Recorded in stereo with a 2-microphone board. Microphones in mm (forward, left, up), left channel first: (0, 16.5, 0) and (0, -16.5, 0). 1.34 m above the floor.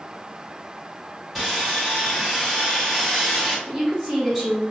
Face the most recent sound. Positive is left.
turn(degrees=0)  # may be behind; listen again after turning